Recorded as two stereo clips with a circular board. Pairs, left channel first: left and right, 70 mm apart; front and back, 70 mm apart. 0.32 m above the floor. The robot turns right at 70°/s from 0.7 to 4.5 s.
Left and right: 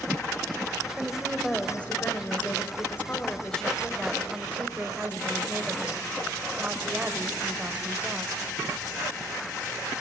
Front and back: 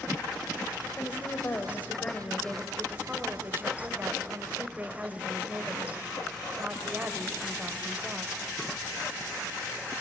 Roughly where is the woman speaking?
Ahead right.